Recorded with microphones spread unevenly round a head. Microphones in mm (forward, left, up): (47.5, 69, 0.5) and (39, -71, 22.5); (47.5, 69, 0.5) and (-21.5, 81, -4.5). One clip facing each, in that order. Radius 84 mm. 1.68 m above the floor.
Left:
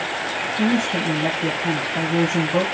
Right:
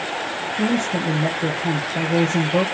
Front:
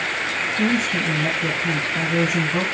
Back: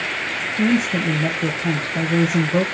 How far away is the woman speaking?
About 1.7 m.